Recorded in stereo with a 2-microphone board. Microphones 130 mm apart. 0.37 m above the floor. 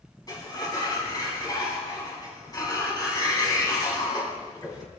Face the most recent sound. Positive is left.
turn(degrees=30)  # may be behind; listen again after turning